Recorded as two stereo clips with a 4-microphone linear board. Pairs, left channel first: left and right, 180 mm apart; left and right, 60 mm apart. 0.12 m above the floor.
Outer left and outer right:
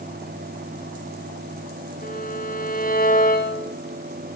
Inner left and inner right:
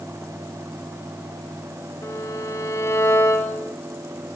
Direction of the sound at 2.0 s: 50° left (ahead or behind).